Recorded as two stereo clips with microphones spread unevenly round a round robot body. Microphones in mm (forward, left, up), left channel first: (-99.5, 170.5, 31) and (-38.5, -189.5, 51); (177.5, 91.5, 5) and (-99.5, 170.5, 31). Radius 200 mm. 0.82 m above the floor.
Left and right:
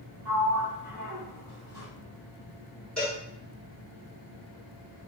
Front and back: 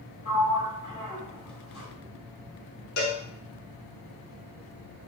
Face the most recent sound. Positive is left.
turn(degrees=10)